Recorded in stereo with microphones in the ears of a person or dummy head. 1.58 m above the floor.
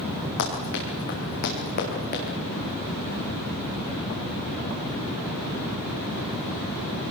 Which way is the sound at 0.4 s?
65° left (ahead or behind).